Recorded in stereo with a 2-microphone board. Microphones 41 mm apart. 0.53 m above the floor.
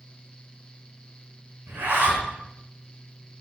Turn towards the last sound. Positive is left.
turn(degrees=-75)  # may be behind; listen again after turning